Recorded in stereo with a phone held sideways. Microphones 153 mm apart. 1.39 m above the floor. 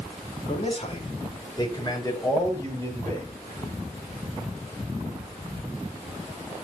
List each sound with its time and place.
0.5 s a man speaking: 45° left (ahead or behind), 4 m; by 3.3 s 15° left (ahead or behind), 7 m